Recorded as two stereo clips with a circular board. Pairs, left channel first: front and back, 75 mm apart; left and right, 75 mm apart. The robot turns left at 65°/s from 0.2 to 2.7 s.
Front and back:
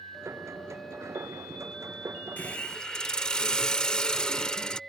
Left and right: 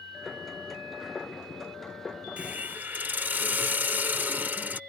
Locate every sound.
2.4 s a hiss: 45° right; by 4.8 s 65° right